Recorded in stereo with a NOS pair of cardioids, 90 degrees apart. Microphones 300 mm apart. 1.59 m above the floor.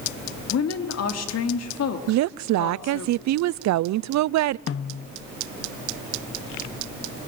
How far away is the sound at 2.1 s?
About 0.6 m.